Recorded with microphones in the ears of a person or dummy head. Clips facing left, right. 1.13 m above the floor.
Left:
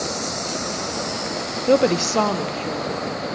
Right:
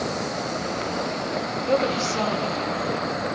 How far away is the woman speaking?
About 0.6 m.